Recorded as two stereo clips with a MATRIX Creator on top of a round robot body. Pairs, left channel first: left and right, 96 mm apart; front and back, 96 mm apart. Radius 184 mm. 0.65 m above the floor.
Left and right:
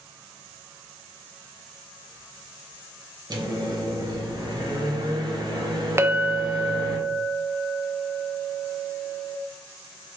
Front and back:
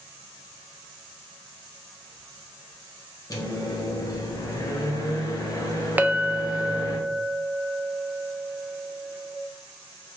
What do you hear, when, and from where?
3.3 s a microwave: 50° right, 1.0 m
6.0 s a clink: 125° right, 0.5 m